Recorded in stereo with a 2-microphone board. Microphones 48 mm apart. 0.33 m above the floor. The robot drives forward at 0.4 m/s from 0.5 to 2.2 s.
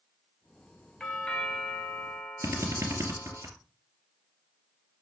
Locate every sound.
1.0 s a doorbell: 20° left (ahead or behind), 1.3 m
2.4 s a drill: 80° right, 2.5 m